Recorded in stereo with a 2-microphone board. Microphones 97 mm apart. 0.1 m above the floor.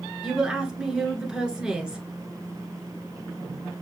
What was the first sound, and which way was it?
A woman speaking, 10° right (ahead or behind).